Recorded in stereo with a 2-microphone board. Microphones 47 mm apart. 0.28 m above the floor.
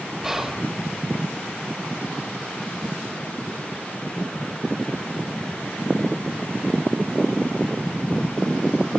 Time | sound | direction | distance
0.2 | whispering | 10° right (ahead or behind) | 0.9 m